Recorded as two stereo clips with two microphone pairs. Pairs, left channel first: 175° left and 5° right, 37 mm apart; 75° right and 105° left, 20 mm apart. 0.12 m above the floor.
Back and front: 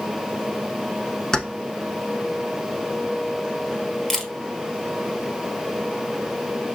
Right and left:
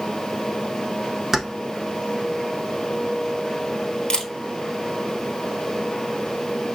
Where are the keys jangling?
160° left, 0.8 m.